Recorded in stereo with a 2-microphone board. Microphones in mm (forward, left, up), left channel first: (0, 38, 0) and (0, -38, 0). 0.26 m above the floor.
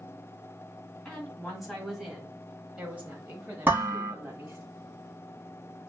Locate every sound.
1.1 s a woman speaking: 5° left (ahead or behind), 1.6 m; by 4.7 s 35° right (ahead or behind), 1.3 m
3.6 s dishes clattering: 25° right (ahead or behind), 1.5 m